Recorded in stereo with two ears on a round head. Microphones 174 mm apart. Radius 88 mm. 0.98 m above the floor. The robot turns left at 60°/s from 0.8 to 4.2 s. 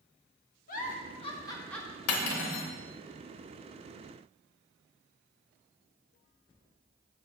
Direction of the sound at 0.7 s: 45° left (ahead or behind).